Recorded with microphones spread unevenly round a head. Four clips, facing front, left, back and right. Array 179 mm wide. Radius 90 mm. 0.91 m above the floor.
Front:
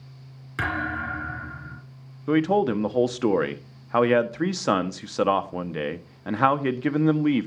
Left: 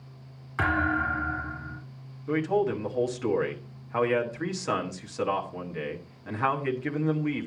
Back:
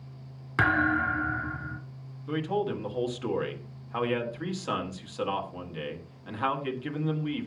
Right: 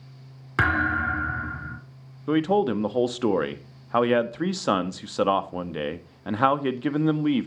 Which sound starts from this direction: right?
A thud, at 0.6 s.